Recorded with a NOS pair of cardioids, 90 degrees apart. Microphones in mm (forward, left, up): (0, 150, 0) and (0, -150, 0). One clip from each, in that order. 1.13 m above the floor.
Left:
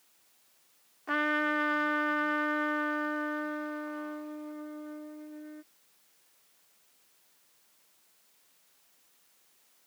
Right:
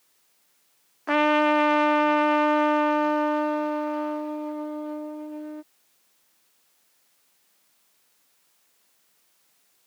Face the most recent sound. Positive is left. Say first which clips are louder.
# right 9 dB
turn(degrees=-50)